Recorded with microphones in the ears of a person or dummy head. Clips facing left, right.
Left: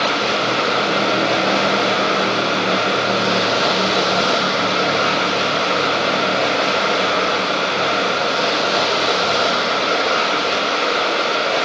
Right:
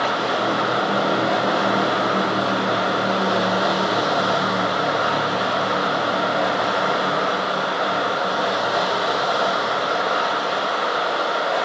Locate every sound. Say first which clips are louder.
0.0 s running water: left 2 dB; 35° left (ahead or behind), 1.2 m